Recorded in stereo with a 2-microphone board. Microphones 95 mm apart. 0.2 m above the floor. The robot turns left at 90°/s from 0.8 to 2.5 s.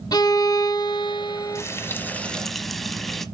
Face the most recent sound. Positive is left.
turn(degrees=0)  # may be behind; listen again after turning